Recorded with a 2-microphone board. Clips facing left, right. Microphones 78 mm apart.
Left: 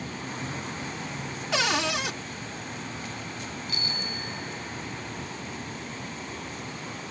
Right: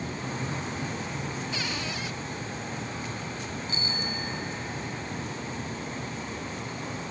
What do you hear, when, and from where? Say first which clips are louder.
1.5 s a cupboard door: left 7 dB; 80° left
3.7 s a bicycle bell: right 2 dB; 30° right (ahead or behind)